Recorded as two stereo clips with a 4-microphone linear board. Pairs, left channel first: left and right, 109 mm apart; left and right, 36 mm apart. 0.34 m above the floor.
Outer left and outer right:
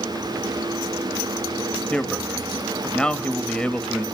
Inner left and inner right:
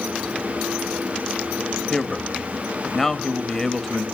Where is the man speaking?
10° left (ahead or behind), 1.5 m.